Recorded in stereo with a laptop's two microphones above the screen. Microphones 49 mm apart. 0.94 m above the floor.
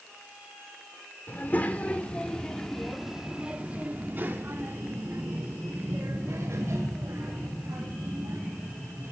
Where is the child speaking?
40° left (ahead or behind), 2.5 m; by 9.1 s 90° right, 5.5 m.